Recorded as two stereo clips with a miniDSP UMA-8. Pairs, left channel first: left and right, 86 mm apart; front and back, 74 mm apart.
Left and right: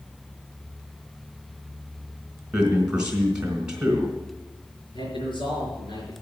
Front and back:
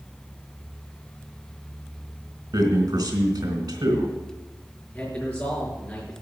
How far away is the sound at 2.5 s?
About 3.5 m.